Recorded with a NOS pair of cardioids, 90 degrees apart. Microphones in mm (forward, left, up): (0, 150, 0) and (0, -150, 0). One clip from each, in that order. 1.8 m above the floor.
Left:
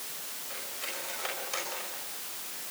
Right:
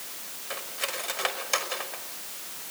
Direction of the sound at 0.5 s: 65° right.